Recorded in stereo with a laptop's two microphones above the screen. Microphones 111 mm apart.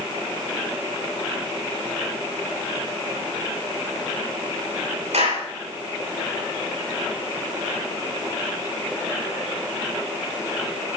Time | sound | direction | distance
5.1 | a clap | 85° right | 9.5 m